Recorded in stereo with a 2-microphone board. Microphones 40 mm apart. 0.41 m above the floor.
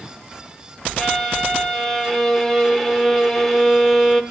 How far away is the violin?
About 0.8 m.